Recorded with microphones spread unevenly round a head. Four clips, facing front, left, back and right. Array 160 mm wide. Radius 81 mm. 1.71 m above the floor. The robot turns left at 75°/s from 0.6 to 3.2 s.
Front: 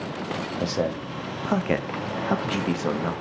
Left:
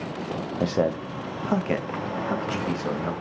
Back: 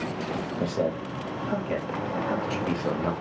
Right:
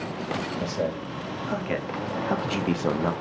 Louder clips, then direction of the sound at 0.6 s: Left 4 dB, front 1 dB; 95° left.